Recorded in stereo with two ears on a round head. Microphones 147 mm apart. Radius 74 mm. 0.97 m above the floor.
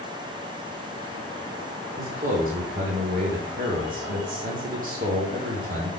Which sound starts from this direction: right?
A man speaking, at 2.0 s.